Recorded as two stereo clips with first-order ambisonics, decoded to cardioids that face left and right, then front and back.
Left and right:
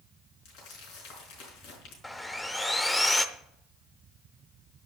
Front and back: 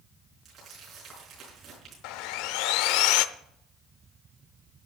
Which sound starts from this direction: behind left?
Crumpling, at 0.5 s.